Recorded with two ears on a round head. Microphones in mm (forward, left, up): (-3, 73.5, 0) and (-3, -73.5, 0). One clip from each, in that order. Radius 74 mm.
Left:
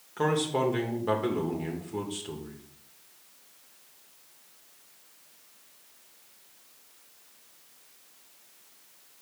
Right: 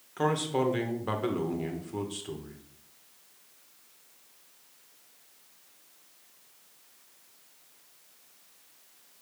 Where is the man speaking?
10° right (ahead or behind), 0.9 m.